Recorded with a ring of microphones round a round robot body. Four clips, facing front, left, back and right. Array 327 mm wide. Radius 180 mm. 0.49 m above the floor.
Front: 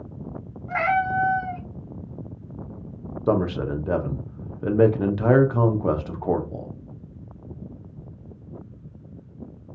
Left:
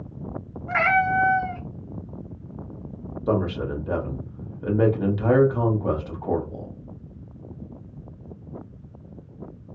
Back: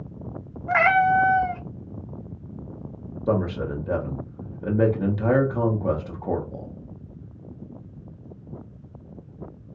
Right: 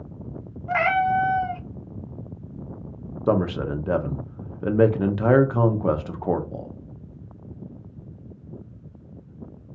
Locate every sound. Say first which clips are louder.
0.7 s a cat meowing: even, back 4 dB; 165° right, 0.6 m
3.3 s a man speaking: right 2 dB, front 2 dB; 55° right, 0.8 m